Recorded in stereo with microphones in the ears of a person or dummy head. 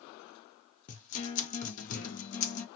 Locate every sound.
0.9 s a guitar: 35° left (ahead or behind), 0.7 m